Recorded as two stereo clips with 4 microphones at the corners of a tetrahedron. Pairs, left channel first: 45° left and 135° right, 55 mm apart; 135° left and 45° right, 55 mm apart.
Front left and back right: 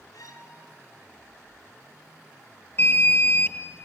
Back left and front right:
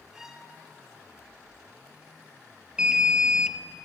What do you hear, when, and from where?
0.1 s a violin: 35° left, 3 m
2.8 s an alarm: 20° left, 1.5 m